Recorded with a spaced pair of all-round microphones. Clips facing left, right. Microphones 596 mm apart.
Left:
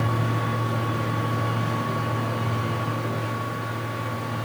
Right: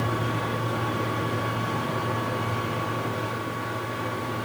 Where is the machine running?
15° left (ahead or behind), 5.5 m.